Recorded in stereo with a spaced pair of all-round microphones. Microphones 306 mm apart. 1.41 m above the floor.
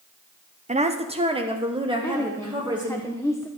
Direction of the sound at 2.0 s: 10° left (ahead or behind).